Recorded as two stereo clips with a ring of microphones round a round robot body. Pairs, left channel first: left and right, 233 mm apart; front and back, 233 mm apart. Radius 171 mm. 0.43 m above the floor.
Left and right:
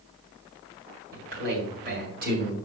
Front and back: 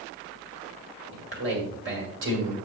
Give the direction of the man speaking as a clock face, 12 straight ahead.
5 o'clock.